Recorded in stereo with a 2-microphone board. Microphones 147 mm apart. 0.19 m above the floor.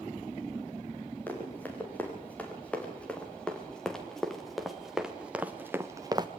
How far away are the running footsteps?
About 6.5 m.